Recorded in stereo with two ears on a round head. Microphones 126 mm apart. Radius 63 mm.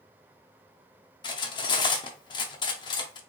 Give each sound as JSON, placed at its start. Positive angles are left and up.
{"t": 1.2, "sound": "cutlery clinking", "side_deg": 30, "distance_m": 0.6}